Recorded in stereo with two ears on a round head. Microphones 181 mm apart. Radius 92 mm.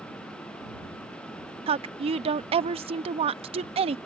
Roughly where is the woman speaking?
Right.